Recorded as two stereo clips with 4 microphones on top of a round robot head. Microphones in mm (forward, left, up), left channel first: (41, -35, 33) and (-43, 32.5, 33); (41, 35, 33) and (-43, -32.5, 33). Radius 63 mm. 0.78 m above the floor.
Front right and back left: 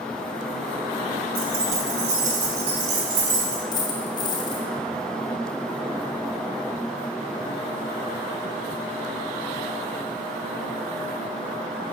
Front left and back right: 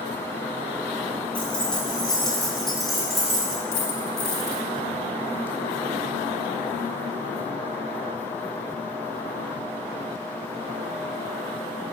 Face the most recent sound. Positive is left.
turn(degrees=15)